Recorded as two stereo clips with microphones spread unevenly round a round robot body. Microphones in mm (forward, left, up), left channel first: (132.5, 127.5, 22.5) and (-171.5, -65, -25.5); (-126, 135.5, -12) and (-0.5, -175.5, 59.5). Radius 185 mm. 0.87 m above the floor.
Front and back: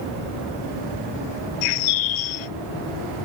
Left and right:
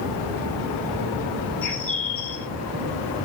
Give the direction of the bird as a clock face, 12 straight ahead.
11 o'clock.